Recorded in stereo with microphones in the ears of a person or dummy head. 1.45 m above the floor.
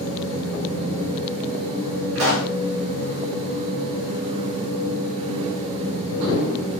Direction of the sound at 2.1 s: 60° right (ahead or behind).